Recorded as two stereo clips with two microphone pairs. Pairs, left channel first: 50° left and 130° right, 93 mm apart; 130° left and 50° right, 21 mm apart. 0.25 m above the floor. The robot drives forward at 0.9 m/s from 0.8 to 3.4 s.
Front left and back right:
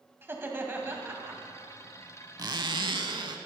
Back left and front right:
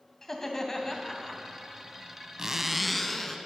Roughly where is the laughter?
Behind.